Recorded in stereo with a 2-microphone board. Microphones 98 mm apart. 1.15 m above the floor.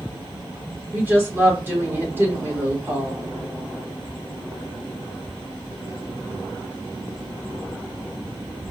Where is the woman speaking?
20° right (ahead or behind), 1.8 m.